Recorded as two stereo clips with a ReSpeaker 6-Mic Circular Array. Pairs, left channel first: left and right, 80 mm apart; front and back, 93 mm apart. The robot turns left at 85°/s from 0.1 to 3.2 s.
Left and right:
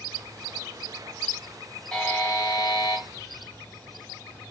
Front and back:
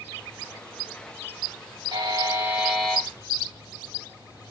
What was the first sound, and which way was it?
A buzzer, 160° left.